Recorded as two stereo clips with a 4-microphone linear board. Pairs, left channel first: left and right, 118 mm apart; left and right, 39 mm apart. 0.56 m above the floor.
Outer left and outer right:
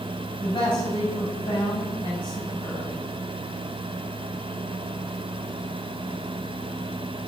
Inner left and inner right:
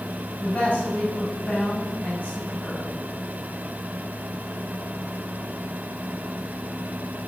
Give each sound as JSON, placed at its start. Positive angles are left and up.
{"t": 0.4, "sound": "a man speaking", "side_deg": 40, "distance_m": 3.5}